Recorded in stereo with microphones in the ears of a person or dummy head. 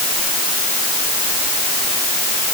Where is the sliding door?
I don't hear a sliding door.